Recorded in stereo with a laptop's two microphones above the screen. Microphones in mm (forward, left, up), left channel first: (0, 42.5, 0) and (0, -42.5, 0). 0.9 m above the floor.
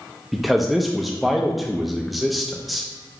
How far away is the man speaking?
About 0.5 m.